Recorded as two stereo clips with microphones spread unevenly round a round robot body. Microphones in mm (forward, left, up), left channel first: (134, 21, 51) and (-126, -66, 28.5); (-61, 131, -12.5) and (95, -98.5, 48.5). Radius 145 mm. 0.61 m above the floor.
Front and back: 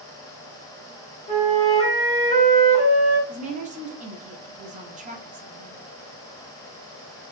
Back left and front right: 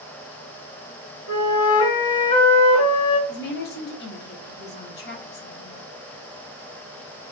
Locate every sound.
1.3 s a flute: 85° left, 3 m
3.3 s a woman speaking: 145° left, 1.3 m